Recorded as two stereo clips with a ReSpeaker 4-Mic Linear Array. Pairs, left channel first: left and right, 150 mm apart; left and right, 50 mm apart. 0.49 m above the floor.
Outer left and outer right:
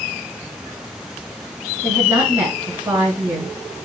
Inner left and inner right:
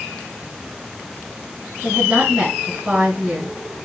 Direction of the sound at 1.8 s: 15° right (ahead or behind).